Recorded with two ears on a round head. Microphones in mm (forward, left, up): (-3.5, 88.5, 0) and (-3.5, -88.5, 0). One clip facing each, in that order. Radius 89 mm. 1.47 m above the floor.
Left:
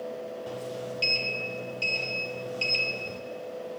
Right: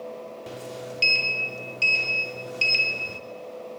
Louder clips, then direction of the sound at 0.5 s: Even; 25° right (ahead or behind).